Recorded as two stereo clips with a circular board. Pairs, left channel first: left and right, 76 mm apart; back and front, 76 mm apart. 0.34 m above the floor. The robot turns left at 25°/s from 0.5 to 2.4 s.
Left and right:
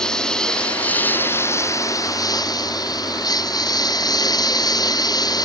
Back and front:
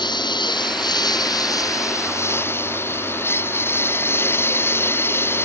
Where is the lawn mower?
170° left; by 5.5 s 120° left.